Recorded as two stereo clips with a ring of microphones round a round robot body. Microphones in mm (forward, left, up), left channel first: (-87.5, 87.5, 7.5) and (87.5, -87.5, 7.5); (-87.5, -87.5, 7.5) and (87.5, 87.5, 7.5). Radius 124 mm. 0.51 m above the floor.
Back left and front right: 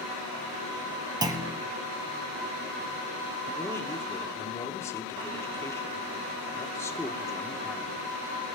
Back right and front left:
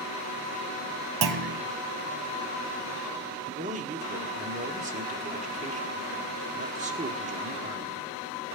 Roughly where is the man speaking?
Left.